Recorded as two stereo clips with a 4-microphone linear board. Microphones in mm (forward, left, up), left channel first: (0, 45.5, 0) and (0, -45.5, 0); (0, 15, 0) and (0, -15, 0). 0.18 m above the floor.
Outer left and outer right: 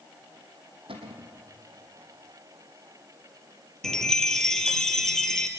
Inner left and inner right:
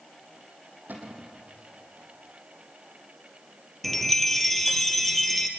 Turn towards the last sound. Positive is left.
turn(degrees=5)  # may be behind; listen again after turning